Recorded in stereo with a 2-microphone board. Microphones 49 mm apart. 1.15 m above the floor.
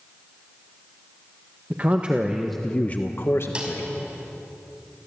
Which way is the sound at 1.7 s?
40° right (ahead or behind).